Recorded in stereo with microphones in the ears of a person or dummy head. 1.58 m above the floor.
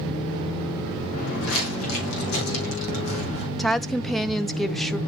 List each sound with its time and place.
1.1 s footsteps: 70° left (ahead or behind), 4 m; by 3.5 s 60° left (ahead or behind), 3 m
3.6 s a woman speaking: 5° left (ahead or behind), 0.5 m